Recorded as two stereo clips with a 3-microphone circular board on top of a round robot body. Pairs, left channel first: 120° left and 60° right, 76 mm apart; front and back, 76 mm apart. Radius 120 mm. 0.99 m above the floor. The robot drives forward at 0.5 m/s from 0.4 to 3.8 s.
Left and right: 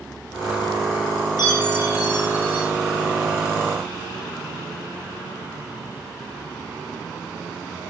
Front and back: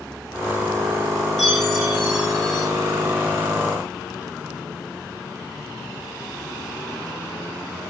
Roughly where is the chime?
Left.